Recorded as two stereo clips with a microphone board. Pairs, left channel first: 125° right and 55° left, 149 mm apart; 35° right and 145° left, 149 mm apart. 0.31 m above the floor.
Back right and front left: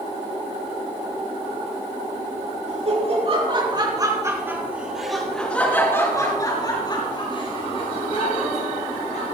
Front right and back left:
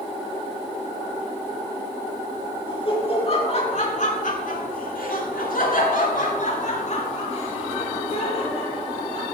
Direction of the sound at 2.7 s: 20° left.